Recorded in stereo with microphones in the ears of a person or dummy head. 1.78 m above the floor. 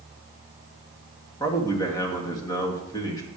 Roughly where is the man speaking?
Centre.